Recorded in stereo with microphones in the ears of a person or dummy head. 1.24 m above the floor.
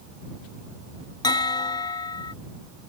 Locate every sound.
1.2 s a bell: 20° left (ahead or behind)